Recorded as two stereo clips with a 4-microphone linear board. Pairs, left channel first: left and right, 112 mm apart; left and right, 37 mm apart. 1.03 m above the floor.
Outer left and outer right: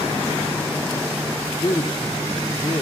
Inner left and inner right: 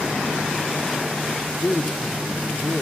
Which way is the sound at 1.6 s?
40° left (ahead or behind).